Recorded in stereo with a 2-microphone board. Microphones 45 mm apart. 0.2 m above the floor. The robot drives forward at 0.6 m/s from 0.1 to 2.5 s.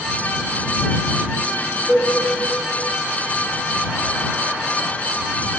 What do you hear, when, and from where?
1.9 s a cowbell: centre (ahead or behind), 2.5 m